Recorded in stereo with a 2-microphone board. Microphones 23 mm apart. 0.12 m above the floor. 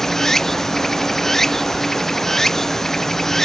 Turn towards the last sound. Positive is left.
turn(degrees=10)  # may be behind; listen again after turning